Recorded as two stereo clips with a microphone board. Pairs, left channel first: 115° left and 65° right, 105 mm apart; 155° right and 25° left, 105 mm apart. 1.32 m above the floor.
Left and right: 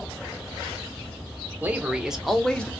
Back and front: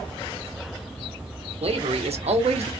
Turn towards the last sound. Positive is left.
turn(degrees=35)